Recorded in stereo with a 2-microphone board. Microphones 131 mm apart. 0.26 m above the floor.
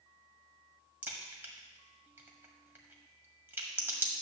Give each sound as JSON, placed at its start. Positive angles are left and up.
{"t": 1.0, "sound": "a crack", "side_deg": -15, "distance_m": 1.6}